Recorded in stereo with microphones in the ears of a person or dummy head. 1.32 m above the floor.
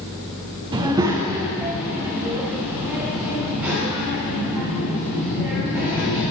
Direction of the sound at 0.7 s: 20° right (ahead or behind).